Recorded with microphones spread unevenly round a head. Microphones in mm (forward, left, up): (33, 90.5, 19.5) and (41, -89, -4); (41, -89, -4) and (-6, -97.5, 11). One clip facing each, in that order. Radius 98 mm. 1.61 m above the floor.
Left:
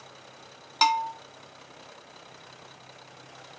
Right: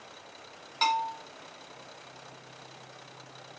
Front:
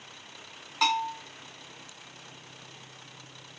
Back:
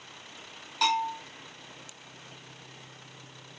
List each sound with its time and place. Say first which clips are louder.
0.8 s a bell: left 4 dB, even; 100° left, 0.7 m